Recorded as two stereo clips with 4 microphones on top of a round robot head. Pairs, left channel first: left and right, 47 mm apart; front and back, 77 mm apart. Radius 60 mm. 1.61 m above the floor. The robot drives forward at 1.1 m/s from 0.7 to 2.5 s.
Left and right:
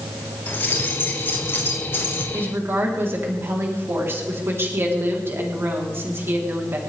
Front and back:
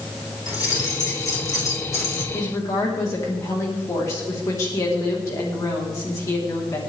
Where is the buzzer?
No buzzer in this recording.